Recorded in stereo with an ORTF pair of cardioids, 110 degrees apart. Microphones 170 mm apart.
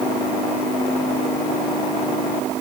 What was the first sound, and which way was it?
Only background noise.